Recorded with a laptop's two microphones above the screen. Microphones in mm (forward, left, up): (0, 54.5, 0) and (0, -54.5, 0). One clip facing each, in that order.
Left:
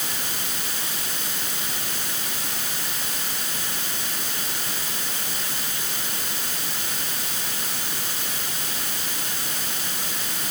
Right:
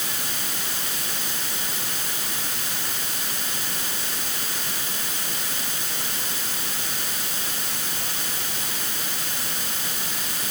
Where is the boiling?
I don't hear boiling.